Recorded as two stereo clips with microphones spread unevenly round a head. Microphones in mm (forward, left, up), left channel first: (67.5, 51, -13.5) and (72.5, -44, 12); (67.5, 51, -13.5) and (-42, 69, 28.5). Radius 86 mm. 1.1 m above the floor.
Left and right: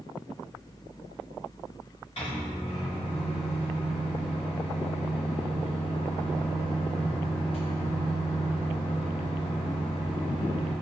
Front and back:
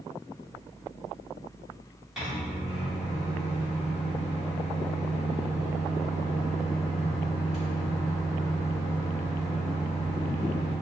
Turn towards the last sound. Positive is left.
turn(degrees=80)